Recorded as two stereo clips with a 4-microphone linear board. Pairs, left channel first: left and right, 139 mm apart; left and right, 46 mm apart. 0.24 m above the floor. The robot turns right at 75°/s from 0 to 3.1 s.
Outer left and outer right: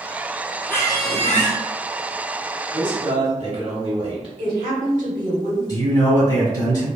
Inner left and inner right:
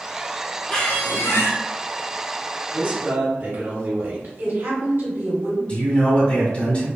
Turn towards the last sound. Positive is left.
turn(degrees=30)  # may be behind; listen again after turning